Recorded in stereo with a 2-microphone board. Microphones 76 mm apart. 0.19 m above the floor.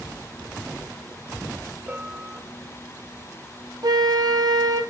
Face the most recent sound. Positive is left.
turn(degrees=-60)  # may be behind; listen again after turning